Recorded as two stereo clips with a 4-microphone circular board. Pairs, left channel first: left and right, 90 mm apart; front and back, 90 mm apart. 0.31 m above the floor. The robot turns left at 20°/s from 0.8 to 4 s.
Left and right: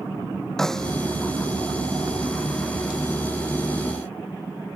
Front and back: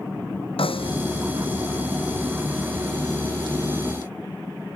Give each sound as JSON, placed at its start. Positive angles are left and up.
{"t": 0.6, "sound": "a snare drum", "azimuth_deg": 5}